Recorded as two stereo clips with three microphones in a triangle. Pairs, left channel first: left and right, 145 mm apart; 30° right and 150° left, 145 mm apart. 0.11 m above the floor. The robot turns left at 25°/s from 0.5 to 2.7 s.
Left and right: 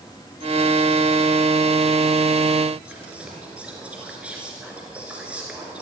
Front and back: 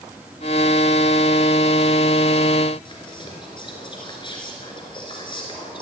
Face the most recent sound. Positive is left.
turn(degrees=-15)